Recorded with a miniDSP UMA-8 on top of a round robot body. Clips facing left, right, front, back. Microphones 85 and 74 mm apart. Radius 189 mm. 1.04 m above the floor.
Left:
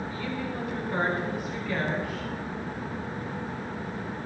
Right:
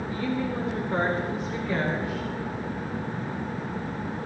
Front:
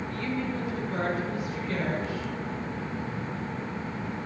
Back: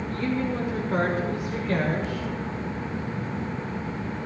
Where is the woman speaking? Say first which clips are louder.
Right 4 dB, back 5 dB; 130° right, 2.5 m; by 2.3 s 160° right, 4.5 m.